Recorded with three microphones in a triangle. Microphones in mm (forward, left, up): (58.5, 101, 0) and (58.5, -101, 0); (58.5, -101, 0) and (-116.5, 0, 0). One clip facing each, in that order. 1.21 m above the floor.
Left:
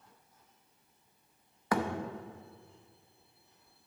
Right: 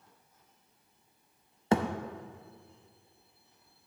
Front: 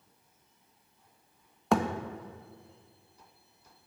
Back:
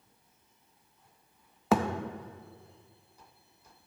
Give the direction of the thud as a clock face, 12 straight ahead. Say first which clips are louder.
Right 4 dB, even; 4 o'clock.